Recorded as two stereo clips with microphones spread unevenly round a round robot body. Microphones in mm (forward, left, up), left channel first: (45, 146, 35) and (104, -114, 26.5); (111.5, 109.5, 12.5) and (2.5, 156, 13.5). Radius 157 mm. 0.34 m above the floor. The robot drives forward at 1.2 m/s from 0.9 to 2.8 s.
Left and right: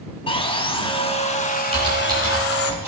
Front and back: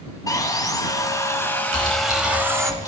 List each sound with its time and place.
0.3 s sawing: 35° left, 2.5 m; by 2.7 s 100° left, 1.6 m
1.7 s typing on a keyboard: 150° right, 4 m; by 2.9 s 160° right, 5 m